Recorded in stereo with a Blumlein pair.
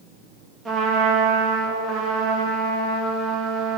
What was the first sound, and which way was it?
A trumpet, 10° right.